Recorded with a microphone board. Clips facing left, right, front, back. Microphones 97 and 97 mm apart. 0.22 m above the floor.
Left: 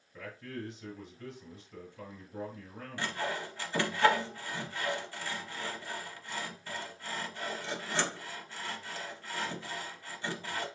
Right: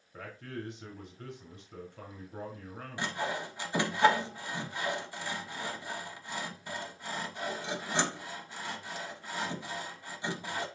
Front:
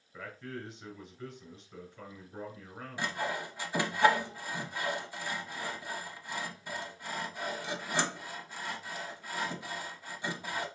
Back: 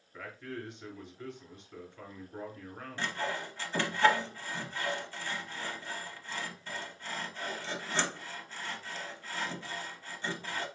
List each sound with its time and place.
0.1 s a man speaking: 90° right, 2.5 m
3.0 s sawing: 55° right, 0.7 m